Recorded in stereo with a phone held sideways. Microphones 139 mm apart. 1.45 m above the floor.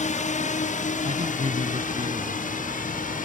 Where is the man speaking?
50° right (ahead or behind).